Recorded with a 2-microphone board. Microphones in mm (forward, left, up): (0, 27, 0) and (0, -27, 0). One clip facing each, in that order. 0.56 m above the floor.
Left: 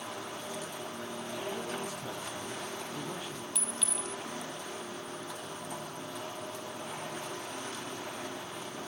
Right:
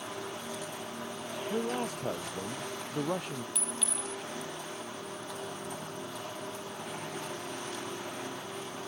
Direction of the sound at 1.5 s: 50° right (ahead or behind).